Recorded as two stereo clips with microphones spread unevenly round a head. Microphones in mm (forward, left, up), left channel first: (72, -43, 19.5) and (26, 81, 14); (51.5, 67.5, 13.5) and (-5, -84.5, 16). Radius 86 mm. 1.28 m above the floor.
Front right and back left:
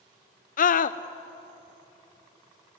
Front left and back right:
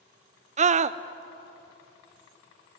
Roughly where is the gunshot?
No gunshot in this recording.